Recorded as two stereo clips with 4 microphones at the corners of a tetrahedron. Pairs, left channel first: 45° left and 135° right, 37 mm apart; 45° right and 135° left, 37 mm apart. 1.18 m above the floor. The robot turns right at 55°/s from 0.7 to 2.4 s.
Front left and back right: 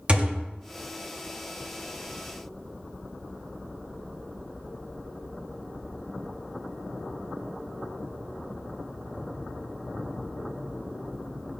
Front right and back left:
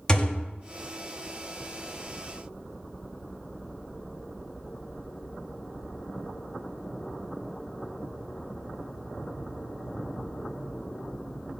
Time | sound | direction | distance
0.1 | a thud | 100° right | 0.5 m